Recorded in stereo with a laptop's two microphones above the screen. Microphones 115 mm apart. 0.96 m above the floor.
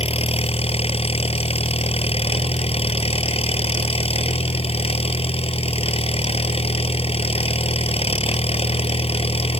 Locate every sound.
0.0 s an engine running: 60° left (ahead or behind)